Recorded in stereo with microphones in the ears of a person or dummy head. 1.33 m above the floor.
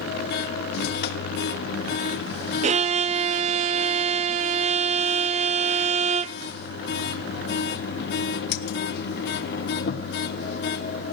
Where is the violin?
35° right (ahead or behind), 0.7 m.